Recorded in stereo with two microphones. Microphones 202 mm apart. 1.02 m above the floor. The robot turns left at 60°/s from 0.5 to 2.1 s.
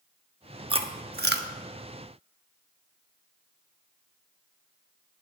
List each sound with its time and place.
0.7 s chewing: 25° right (ahead or behind), 0.9 m; by 1.5 s 65° right (ahead or behind), 0.9 m